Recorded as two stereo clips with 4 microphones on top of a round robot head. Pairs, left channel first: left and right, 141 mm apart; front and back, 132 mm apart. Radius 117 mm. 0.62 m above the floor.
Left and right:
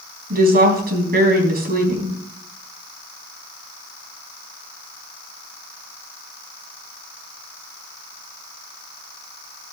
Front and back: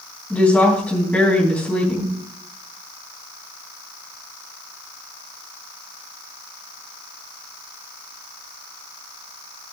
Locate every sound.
0.3 s a woman speaking: 80° right, 4.5 m